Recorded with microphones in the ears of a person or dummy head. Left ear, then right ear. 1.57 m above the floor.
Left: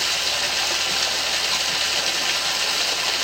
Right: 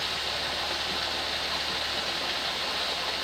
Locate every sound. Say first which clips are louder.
0.0 s running water: left 8 dB; 85° left, 1.9 m